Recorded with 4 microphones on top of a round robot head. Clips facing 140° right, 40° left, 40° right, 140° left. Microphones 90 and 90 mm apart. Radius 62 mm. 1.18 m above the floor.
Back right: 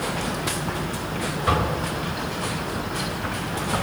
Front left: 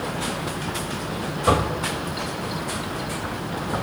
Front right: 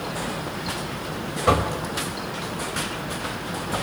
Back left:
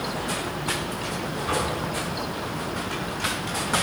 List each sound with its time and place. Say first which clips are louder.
1.5 s knocking: front left 3 dB, front right 7 dB; 20° right, 3.5 m